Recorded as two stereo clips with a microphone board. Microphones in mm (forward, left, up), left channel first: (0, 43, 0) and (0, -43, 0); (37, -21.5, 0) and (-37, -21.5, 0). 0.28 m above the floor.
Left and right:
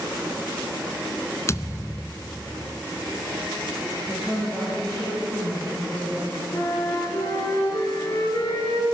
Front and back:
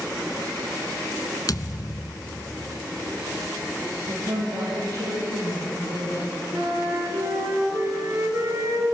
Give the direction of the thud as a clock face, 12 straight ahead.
11 o'clock.